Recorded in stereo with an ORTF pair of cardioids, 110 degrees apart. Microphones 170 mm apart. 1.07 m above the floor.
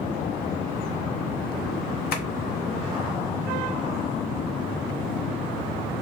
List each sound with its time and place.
2.1 s tapping: 65° left, 1.4 m